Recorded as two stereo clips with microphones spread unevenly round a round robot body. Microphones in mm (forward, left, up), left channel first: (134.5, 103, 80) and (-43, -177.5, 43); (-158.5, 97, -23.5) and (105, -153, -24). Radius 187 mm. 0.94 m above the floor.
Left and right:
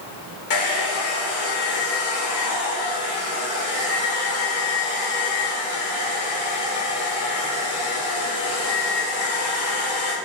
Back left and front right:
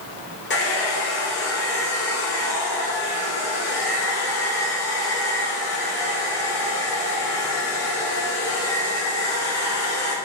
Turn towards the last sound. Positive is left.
turn(degrees=75)